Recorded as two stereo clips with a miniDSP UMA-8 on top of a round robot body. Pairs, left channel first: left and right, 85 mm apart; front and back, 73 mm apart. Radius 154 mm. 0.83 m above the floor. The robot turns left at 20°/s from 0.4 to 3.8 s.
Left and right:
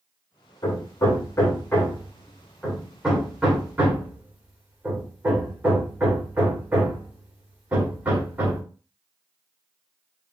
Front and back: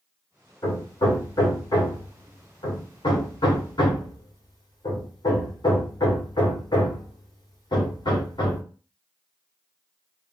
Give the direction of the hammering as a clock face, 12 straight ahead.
11 o'clock.